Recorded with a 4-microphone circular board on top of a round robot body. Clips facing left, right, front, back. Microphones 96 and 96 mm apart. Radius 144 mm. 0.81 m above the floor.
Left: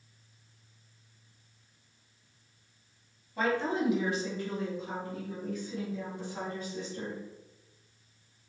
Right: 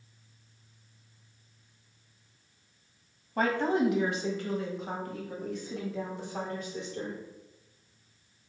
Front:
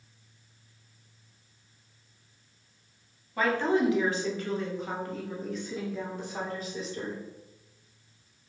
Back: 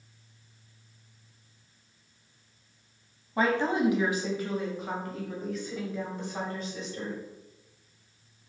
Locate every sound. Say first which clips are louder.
3.4 s a woman speaking: right 3 dB, even; 115° right, 1.2 m; by 7.2 s 85° right, 3 m